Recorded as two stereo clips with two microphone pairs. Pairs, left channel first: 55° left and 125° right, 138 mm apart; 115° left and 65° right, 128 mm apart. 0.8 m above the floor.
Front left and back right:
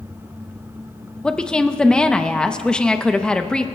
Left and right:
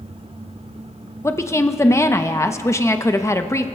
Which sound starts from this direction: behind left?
A woman speaking, at 1.2 s.